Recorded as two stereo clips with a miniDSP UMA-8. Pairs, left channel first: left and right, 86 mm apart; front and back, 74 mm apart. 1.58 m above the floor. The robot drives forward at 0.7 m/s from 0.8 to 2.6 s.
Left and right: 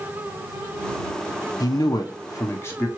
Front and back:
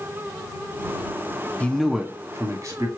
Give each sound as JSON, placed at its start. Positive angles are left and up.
{"t": 1.6, "sound": "a man speaking", "azimuth_deg": 65, "distance_m": 0.5}